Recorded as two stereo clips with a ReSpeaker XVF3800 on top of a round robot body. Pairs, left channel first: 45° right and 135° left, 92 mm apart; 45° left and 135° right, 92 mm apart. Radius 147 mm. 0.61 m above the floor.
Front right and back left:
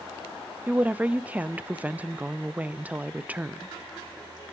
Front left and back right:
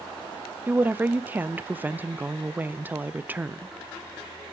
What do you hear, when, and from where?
0.7 s a woman speaking: 175° right, 0.5 m